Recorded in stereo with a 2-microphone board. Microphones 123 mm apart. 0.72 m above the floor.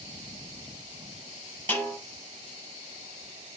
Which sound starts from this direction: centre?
A snare drum, at 1.7 s.